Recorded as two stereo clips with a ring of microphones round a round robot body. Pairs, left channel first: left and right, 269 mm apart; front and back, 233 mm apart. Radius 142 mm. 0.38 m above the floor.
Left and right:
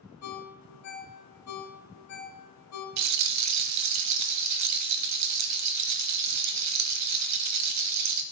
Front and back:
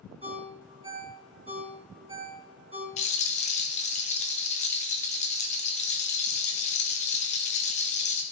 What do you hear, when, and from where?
0.2 s a ringtone: 115° left, 2.5 m
3.0 s a rattle: 65° right, 1.2 m